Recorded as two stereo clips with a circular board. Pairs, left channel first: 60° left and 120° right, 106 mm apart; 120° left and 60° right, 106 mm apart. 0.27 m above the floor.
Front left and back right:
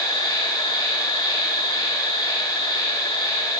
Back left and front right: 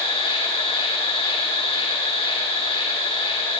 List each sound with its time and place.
0.0 s an insect: 105° left, 4.5 m